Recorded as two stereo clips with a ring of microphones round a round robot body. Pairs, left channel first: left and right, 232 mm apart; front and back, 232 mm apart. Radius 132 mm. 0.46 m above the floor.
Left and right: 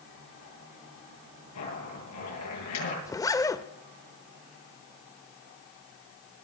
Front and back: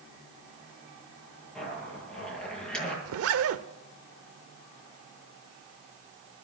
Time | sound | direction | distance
1.6 | a zipper | 85° left | 10 m
3.0 | a zipper | 165° left | 0.8 m